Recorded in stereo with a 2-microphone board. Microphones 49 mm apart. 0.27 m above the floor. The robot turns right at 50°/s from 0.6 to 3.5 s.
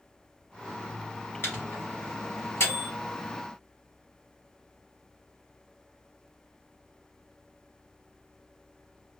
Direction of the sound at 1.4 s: 45° left (ahead or behind).